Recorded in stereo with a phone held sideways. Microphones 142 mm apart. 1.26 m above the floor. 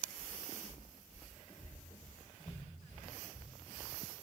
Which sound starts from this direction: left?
Footsteps, at 0.2 s.